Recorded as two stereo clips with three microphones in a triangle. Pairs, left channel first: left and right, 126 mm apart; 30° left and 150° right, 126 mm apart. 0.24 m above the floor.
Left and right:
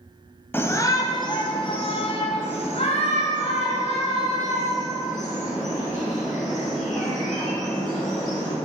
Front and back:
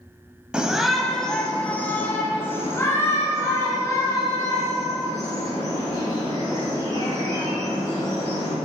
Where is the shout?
135° left, 1.1 m; by 8.6 s 90° left, 5.5 m.